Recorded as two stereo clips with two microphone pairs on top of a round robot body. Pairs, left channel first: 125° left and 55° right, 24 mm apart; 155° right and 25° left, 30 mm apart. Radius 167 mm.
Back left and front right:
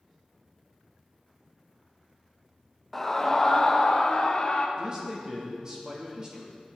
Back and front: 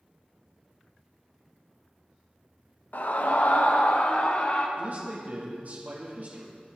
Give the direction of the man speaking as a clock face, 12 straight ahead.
12 o'clock.